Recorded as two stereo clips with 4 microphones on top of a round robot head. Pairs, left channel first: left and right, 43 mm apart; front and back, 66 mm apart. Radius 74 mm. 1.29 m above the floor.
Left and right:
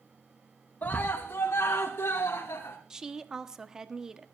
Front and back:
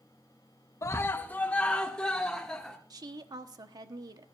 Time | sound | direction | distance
0.8 | a scream | 45° left | 0.8 m
2.9 | a woman speaking | 165° right | 1.2 m